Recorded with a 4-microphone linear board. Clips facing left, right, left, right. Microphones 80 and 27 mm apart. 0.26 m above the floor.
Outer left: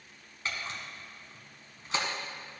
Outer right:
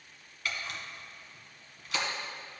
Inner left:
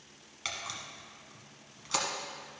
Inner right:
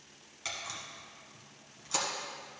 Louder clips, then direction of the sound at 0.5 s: Even, inner left 1 dB; 30° left (ahead or behind).